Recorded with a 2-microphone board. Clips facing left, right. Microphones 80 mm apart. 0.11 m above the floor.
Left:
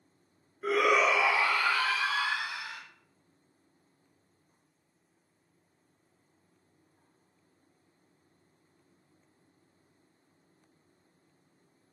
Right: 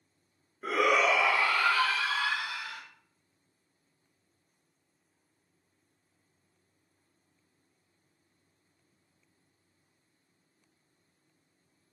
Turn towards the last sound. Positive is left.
turn(degrees=10)  # may be behind; listen again after turning